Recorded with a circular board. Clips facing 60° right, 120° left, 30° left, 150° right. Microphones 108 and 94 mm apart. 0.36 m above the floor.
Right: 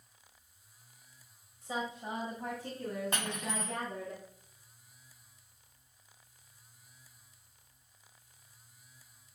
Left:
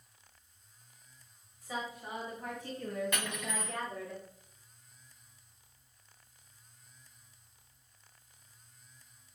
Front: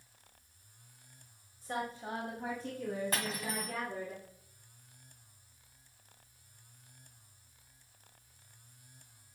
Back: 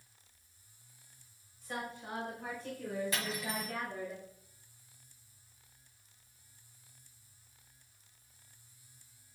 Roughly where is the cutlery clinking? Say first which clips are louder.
Right 1 dB, front 1 dB; ahead.